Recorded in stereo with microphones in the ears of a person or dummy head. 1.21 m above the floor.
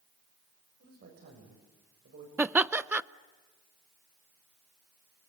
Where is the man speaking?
55° right (ahead or behind), 6 m.